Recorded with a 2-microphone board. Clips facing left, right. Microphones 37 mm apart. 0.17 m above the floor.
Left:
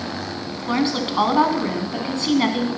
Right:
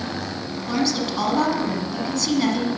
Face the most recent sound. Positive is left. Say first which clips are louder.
# left 2 dB
turn(degrees=30)  # may be behind; listen again after turning